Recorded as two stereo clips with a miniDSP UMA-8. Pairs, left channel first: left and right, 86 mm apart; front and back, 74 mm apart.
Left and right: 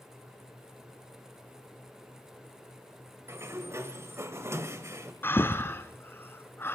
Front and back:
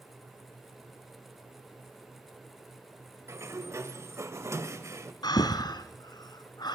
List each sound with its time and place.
3.3 s a sliding door: 140° right, 1.4 m
5.2 s breathing: 25° left, 1.1 m